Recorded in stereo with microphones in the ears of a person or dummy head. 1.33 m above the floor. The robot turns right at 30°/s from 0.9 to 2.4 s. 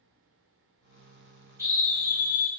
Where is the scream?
10° right (ahead or behind), 5.5 m; by 2.5 s 35° right (ahead or behind), 5.5 m.